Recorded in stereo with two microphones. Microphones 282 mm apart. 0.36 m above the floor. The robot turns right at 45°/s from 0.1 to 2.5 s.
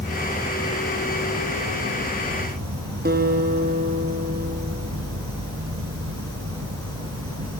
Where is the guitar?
35° right (ahead or behind), 2.0 m.